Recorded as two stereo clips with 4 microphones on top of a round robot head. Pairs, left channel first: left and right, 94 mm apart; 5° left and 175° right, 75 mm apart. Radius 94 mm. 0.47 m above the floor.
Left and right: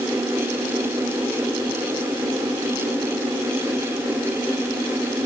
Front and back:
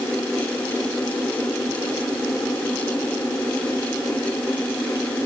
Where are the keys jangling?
I don't hear keys jangling.